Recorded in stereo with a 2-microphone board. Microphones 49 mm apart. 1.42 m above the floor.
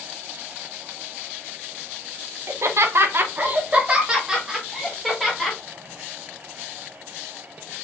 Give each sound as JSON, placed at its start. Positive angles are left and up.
{"t": 2.5, "sound": "laughter", "side_deg": -70, "distance_m": 0.8}